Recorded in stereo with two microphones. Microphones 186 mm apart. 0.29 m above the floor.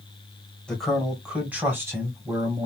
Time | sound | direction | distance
0.7 | a man speaking | 5° left (ahead or behind) | 1.4 m